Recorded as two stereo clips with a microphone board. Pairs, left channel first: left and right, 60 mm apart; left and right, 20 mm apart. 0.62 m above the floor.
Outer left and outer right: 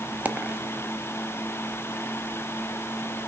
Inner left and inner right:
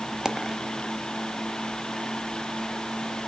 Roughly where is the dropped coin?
Right.